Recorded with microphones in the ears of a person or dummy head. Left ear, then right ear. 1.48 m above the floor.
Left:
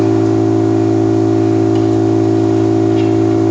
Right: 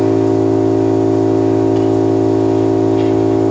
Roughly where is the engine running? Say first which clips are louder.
Even; left.